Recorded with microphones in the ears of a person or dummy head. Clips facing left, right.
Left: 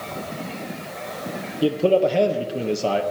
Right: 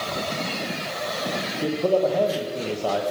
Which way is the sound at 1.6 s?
35° left (ahead or behind).